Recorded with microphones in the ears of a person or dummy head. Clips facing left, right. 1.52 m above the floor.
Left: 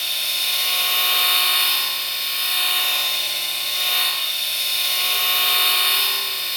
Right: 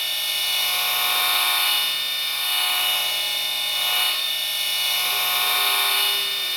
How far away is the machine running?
About 0.8 m.